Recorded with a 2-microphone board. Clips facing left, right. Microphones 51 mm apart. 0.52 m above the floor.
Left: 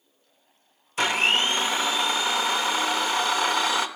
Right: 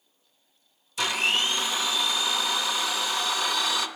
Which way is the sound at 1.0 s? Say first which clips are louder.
Left 3 dB; 40° left (ahead or behind).